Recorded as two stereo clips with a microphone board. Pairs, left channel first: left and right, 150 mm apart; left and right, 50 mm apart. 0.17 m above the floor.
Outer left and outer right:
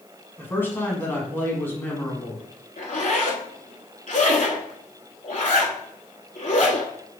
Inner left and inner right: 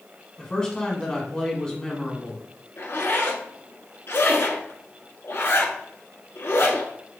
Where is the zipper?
60° left (ahead or behind), 0.7 m.